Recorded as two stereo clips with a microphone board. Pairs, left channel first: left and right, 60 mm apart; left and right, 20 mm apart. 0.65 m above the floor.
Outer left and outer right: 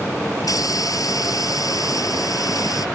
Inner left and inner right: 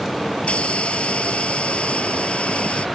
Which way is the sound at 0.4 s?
85° left.